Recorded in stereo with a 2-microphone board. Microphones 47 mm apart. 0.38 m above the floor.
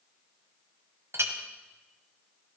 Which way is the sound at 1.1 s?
70° right (ahead or behind).